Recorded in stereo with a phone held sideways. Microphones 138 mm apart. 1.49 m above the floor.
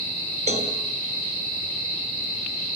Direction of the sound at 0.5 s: 55° right (ahead or behind).